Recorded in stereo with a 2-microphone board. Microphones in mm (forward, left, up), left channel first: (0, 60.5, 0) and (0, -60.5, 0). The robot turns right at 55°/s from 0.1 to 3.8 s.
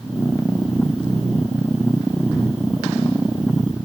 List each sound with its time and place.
Only background noise.